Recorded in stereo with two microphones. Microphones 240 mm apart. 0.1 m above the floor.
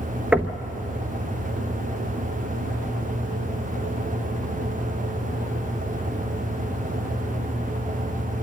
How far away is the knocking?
About 1.0 m.